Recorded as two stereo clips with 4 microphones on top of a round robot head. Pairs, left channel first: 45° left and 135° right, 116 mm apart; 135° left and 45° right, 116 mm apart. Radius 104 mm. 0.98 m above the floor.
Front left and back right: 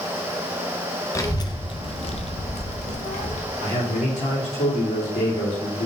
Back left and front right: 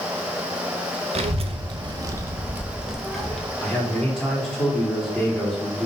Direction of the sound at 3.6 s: 55° left.